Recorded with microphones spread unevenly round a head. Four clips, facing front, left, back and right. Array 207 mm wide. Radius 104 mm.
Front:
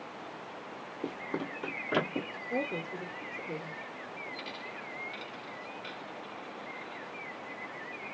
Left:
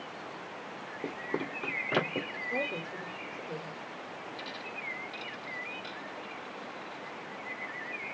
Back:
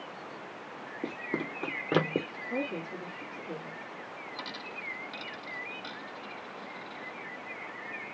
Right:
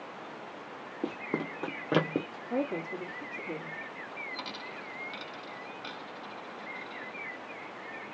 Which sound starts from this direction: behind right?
A dropped coin, at 4.4 s.